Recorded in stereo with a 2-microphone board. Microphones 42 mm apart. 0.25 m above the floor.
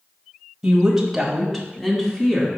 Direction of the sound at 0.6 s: 20° right (ahead or behind).